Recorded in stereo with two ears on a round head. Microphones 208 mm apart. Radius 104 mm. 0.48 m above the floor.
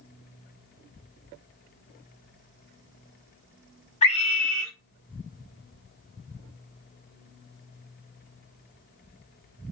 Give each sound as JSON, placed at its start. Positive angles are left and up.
{"t": 4.0, "sound": "a scream", "side_deg": 30, "distance_m": 1.5}